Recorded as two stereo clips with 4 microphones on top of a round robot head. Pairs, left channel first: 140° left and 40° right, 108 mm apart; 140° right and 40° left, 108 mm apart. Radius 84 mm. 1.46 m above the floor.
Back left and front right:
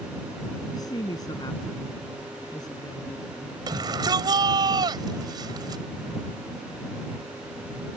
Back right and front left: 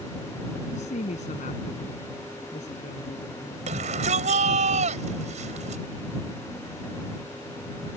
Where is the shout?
15° left.